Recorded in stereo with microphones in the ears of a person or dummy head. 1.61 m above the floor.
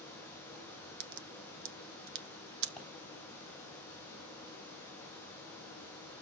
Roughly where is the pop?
Centre.